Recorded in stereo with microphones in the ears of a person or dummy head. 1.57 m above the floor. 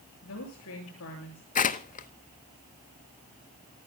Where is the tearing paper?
40° left (ahead or behind), 0.9 m.